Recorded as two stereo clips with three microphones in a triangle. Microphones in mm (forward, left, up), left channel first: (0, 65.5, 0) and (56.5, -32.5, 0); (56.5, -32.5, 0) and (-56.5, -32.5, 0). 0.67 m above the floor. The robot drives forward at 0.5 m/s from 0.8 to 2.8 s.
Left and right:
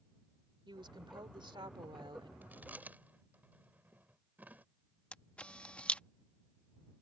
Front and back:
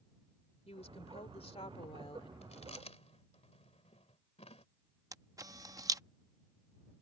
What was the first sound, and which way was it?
A woman speaking, 15° right.